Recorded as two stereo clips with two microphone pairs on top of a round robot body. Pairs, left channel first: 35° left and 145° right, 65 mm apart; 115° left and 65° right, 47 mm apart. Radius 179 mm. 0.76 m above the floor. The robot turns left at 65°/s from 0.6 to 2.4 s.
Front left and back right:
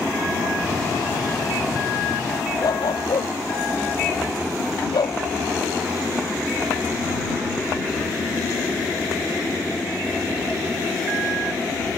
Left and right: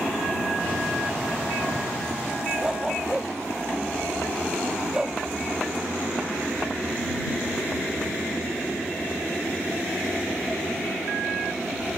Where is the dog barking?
15° left.